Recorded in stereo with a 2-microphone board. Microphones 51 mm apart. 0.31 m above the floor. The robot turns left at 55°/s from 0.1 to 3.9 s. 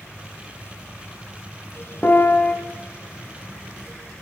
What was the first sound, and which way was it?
A piano, 40° left (ahead or behind).